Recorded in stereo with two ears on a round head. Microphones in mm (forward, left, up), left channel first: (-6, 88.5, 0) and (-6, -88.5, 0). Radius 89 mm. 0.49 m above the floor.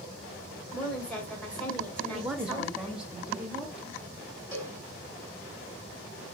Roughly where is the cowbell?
Centre.